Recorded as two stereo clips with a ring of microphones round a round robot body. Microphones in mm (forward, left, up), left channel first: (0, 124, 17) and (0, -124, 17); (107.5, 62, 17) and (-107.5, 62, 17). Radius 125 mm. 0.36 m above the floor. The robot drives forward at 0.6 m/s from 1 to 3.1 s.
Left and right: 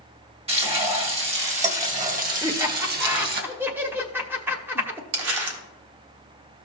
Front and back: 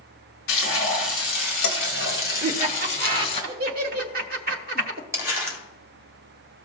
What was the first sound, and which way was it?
Frying, 25° right.